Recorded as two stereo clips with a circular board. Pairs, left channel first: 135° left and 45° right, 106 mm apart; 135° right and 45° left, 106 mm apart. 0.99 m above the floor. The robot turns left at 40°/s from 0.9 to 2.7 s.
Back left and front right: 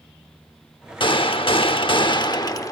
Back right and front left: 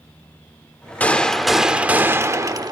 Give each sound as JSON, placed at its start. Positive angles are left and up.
{"t": 1.0, "sound": "a gunshot", "azimuth_deg": 155, "distance_m": 0.8}